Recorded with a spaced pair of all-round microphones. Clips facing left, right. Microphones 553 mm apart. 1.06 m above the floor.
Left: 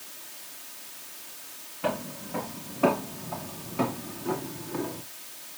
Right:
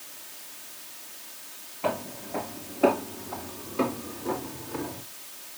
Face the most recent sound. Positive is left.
turn(degrees=-10)  # may be behind; listen again after turning